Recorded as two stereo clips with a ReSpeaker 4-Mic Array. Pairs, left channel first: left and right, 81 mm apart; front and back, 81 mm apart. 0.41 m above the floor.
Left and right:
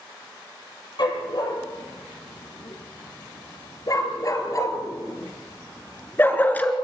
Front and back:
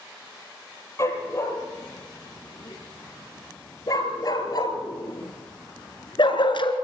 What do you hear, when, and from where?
1.0 s a dog barking: 55° left, 4.5 m; by 6.7 s 15° left, 1.9 m